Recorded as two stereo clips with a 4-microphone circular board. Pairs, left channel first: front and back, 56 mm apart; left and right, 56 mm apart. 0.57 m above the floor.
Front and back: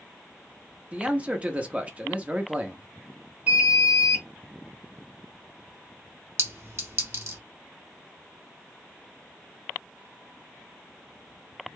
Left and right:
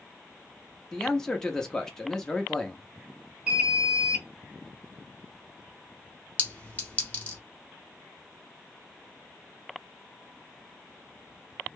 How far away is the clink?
About 1.1 m.